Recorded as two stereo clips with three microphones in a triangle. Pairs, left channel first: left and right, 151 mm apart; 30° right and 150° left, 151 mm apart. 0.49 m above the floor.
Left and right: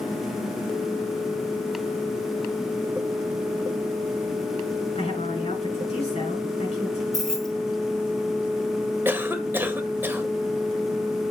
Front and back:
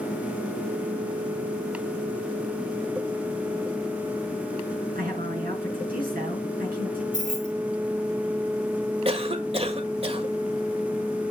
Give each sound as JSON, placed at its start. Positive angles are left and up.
{"t": 5.0, "sound": "a woman speaking", "azimuth_deg": 135, "distance_m": 6.5}
{"t": 7.1, "sound": "keys jangling", "azimuth_deg": 5, "distance_m": 1.7}
{"t": 9.1, "sound": "a cough", "azimuth_deg": -165, "distance_m": 1.7}